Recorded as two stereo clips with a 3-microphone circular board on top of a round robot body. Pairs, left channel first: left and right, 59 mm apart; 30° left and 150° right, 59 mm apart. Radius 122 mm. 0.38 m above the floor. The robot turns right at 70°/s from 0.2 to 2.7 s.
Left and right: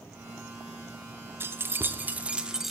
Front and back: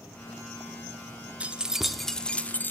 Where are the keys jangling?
95° right, 0.5 m; by 2.7 s 5° right, 0.5 m.